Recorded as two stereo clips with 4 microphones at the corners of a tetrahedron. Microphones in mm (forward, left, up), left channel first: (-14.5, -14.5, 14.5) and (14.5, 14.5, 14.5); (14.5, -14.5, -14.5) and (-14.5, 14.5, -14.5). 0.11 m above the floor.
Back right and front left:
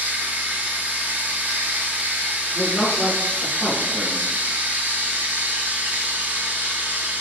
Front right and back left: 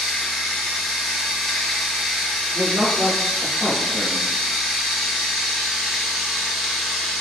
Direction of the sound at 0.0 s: 50° left.